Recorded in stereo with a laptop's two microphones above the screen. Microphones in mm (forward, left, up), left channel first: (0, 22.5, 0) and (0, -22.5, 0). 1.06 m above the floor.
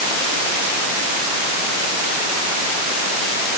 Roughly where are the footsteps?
I don't hear footsteps.